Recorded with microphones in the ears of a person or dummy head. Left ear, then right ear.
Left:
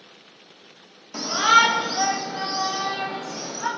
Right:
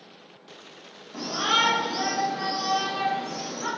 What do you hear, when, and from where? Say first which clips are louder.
1.1 s a shout: left 7 dB; 65° left (ahead or behind), 1.5 m; by 3.7 s 45° left (ahead or behind), 3 m